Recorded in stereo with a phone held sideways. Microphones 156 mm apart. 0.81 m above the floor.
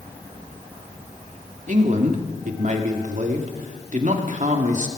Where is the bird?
No bird in this recording.